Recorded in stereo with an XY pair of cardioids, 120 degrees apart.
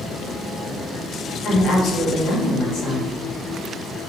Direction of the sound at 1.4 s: 70° left.